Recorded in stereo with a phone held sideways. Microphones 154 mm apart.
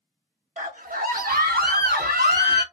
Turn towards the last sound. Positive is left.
turn(degrees=-80)